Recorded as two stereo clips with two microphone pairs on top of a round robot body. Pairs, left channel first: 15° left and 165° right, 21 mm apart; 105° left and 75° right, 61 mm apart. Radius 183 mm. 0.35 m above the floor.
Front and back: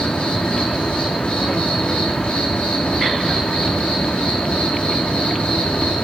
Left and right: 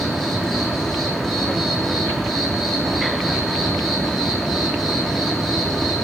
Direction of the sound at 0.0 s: 20° left.